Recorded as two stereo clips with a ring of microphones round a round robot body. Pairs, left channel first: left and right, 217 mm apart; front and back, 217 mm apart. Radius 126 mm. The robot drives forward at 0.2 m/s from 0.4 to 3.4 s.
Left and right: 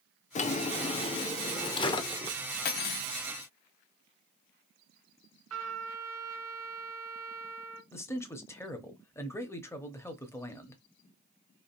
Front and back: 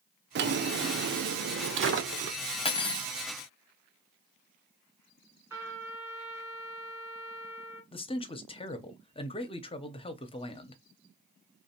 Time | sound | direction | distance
0.3 | a drawer | 145° left | 0.6 m
2.6 | cutlery clinking | 60° left | 0.8 m
5.5 | a trumpet | 100° right | 1.7 m
7.9 | a man speaking | 25° left | 0.7 m